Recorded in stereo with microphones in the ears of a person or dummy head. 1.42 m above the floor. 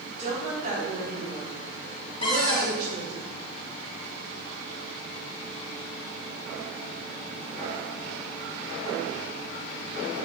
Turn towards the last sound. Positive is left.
turn(degrees=30)  # may be behind; listen again after turning